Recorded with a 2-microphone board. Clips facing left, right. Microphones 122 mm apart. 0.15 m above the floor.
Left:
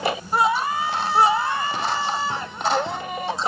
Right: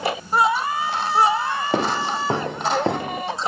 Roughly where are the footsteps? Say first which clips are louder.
Right 3 dB; right.